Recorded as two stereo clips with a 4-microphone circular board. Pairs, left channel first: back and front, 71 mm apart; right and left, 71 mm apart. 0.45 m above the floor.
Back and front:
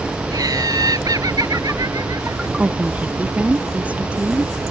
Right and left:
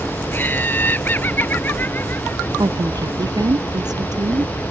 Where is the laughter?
30° right.